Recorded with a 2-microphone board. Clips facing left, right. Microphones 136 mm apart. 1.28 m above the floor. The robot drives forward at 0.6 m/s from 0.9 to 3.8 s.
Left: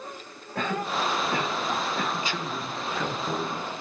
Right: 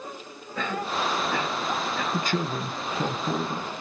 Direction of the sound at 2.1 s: 55° right (ahead or behind).